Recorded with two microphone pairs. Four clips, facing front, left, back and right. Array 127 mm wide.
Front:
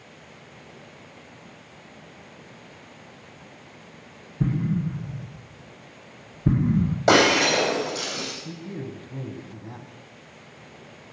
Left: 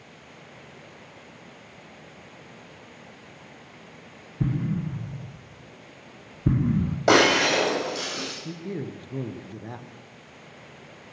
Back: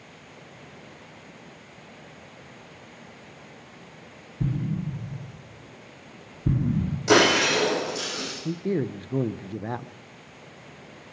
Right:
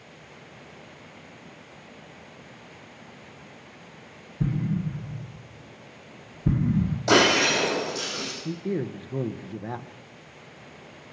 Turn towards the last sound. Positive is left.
turn(degrees=-165)